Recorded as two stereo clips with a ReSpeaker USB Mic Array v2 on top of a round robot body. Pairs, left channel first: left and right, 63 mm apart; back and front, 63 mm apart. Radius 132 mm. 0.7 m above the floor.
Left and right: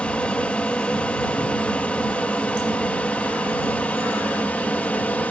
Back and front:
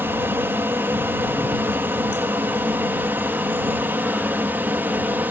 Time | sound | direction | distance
0.0 | an aircraft | 30° left | ?